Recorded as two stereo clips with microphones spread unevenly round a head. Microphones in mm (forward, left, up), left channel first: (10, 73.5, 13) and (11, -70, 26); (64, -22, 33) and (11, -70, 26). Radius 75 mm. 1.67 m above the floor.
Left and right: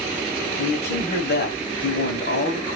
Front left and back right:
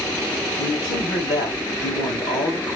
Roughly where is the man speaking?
Left.